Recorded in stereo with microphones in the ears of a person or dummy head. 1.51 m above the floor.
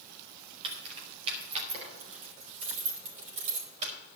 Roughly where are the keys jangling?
Right.